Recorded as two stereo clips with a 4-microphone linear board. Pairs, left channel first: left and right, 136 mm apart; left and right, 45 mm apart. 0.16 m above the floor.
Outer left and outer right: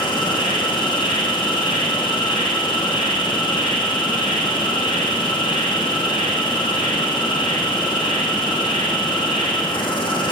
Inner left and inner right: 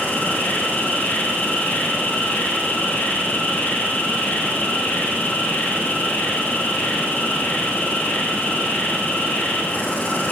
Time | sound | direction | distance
0.0 | an insect | 40° left (ahead or behind) | 1.1 m